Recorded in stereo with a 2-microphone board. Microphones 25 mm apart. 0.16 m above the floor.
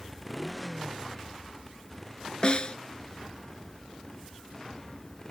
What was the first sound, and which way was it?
A motorcycle, 5° right (ahead or behind).